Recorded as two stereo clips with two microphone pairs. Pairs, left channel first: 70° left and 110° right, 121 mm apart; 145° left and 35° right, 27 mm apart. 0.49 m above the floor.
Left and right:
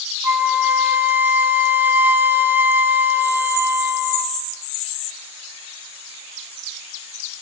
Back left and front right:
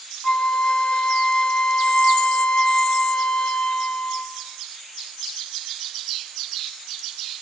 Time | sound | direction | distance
0.2 | a flute | 175° right | 1.0 m